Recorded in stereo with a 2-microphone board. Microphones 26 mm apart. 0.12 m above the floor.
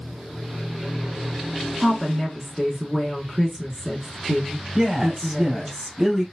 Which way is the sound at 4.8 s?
20° right (ahead or behind).